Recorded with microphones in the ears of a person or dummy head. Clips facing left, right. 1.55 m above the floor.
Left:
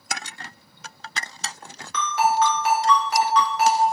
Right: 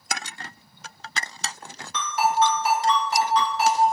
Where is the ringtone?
65° left (ahead or behind), 1.2 m.